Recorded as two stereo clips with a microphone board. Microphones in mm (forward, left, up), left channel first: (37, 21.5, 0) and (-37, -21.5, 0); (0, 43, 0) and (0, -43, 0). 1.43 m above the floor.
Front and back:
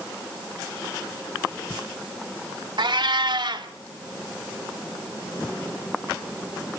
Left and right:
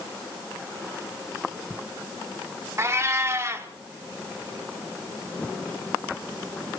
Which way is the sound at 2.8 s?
145° right.